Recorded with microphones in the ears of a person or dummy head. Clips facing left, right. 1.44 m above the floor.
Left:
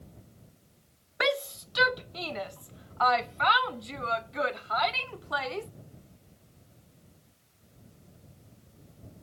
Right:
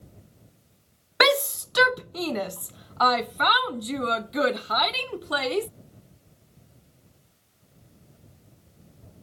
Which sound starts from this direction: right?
A shout, at 1.2 s.